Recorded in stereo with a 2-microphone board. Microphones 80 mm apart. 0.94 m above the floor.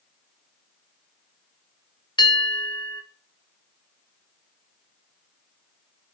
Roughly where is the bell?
Left.